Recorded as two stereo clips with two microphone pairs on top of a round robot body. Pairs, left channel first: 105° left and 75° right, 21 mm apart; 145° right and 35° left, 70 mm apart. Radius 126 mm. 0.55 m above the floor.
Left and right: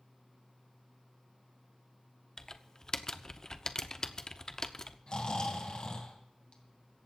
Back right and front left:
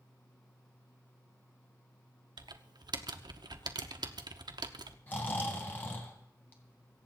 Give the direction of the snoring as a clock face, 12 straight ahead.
7 o'clock.